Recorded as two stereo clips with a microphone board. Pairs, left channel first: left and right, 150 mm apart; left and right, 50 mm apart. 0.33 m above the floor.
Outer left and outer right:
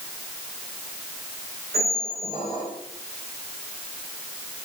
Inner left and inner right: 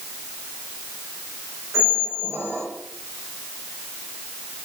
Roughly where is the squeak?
Right.